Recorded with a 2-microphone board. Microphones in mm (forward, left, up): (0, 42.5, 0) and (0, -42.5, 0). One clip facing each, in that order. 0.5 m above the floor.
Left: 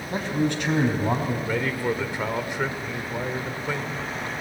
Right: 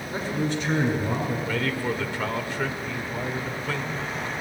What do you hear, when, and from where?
0.1 s a man speaking: 70° left (ahead or behind), 4.5 m
1.5 s a man speaking: 20° left (ahead or behind), 1.6 m